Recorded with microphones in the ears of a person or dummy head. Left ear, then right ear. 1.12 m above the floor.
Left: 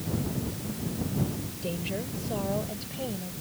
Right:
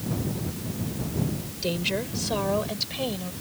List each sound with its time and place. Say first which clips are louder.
1.6 s a woman speaking: right 7 dB; 45° right (ahead or behind); by 3.3 s 55° right (ahead or behind)